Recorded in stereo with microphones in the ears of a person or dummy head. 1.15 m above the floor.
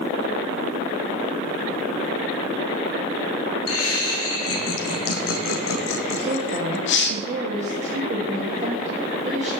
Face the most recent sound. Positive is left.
turn(degrees=-35)  # may be behind; listen again after turning